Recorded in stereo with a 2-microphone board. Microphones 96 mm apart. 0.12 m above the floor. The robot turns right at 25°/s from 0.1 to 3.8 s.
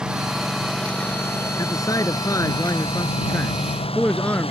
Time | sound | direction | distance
0.0 | a lawn mower | 10° right | ?
1.6 | a man speaking | 105° left | ?